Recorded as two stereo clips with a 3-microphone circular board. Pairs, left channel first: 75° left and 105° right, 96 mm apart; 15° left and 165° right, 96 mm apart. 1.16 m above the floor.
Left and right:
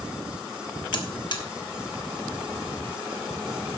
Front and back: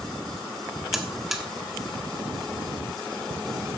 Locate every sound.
0.9 s a buzzer: 110° left, 1.2 m